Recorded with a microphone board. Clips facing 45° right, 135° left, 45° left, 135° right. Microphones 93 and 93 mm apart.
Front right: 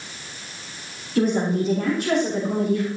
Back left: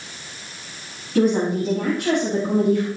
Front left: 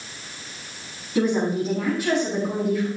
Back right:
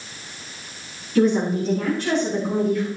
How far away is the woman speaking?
About 5 m.